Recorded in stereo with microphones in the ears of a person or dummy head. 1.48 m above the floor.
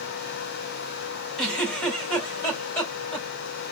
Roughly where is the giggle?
Centre.